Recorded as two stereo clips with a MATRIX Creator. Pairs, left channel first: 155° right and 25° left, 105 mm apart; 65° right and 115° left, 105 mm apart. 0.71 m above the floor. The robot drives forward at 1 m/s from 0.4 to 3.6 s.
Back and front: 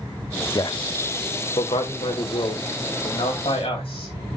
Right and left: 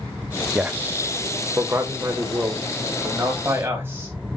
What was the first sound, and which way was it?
A man speaking, 175° right.